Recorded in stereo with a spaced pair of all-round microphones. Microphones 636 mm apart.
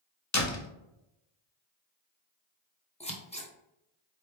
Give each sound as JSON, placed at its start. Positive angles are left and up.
{"t": 0.3, "sound": "a door slam", "side_deg": 25, "distance_m": 0.8}
{"t": 3.0, "sound": "scissors", "side_deg": 10, "distance_m": 0.8}